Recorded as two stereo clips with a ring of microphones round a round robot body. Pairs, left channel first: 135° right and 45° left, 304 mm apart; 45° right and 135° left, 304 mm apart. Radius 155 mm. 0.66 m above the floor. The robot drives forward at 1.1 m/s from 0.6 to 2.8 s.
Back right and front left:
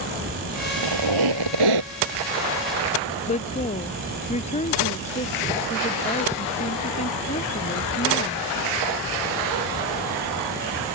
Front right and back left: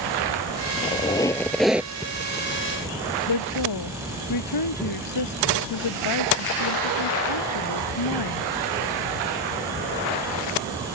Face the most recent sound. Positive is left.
turn(degrees=-65)